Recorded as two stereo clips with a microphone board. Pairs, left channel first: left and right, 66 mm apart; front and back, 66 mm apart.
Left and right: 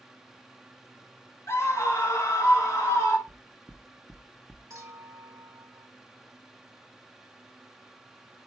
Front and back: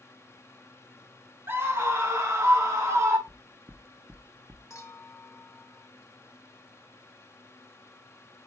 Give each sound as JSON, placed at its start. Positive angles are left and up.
{"t": 1.5, "sound": "a scream", "azimuth_deg": 130, "distance_m": 2.5}
{"t": 3.3, "sound": "knocking", "azimuth_deg": 150, "distance_m": 0.8}
{"t": 4.7, "sound": "a clink", "azimuth_deg": -45, "distance_m": 2.5}